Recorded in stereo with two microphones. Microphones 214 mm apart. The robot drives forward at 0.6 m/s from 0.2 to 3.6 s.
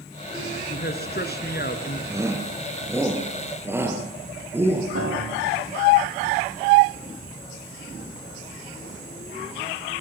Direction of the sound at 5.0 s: 80° right.